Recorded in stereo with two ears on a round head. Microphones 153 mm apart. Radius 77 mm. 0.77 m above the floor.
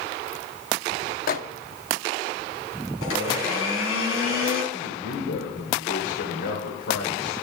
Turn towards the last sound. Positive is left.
turn(degrees=70)  # may be behind; listen again after turning